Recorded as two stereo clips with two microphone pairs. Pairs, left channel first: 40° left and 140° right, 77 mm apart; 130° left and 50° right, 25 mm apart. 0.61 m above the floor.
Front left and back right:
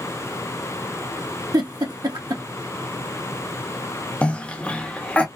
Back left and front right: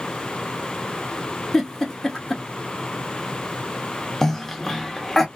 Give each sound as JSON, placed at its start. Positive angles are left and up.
{"t": 1.5, "sound": "a giggle", "azimuth_deg": -165, "distance_m": 1.0}
{"t": 4.2, "sound": "a cough", "azimuth_deg": 85, "distance_m": 0.7}